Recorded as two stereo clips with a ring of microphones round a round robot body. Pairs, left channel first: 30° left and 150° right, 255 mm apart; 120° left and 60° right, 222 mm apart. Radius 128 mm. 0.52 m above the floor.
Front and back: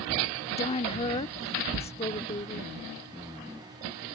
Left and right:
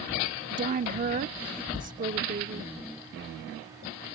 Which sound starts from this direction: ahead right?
A woman speaking, at 0.5 s.